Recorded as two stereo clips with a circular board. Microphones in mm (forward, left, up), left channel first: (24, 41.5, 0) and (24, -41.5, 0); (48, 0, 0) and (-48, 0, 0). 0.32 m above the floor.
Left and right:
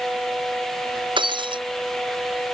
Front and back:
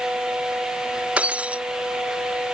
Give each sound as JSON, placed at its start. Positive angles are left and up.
{"t": 1.2, "sound": "breaking glass", "azimuth_deg": -105}